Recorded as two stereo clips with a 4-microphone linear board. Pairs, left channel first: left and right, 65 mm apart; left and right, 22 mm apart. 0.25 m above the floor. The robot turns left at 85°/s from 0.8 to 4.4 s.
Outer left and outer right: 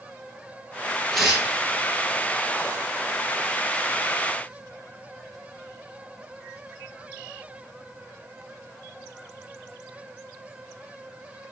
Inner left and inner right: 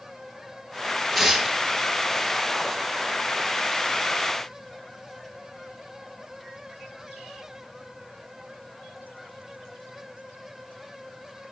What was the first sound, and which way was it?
Tearing paper, 10° left.